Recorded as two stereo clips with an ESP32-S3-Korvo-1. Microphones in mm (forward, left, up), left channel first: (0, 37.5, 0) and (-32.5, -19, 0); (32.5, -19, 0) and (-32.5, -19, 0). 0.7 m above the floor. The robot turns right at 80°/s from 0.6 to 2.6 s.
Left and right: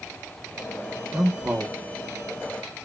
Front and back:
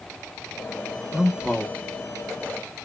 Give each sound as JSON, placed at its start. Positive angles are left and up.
{"t": 1.1, "sound": "a man speaking", "azimuth_deg": -105, "distance_m": 0.7}